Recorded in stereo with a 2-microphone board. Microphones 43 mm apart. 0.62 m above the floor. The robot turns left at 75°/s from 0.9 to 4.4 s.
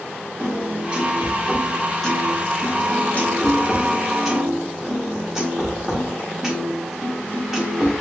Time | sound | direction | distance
0.4 | a piano | 125° right | 1.2 m